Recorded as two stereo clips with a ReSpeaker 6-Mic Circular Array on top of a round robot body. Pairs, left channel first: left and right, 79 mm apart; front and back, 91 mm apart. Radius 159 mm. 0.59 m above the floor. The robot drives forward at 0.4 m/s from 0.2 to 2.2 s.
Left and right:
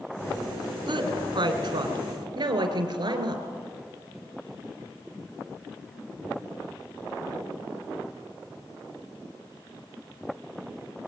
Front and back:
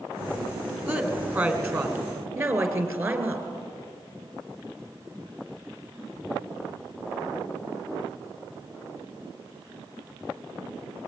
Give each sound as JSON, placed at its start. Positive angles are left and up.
{"t": 0.9, "sound": "a woman speaking", "azimuth_deg": -110, "distance_m": 3.0}